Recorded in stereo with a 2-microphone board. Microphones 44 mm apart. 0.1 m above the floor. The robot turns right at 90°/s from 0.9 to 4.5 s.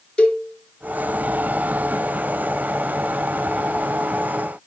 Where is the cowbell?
20° left (ahead or behind), 1.8 m.